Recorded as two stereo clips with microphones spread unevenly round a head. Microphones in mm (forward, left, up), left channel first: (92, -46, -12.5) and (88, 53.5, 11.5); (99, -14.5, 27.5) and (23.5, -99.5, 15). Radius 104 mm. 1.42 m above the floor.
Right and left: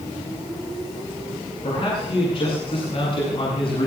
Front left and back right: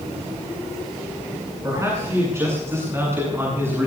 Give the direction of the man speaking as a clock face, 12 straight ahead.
2 o'clock.